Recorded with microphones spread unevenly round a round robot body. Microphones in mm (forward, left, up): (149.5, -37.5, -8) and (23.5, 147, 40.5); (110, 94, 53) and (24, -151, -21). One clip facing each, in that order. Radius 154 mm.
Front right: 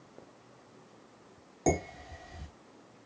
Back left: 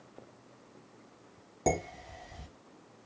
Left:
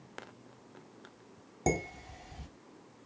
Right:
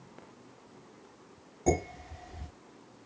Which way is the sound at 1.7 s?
65° left.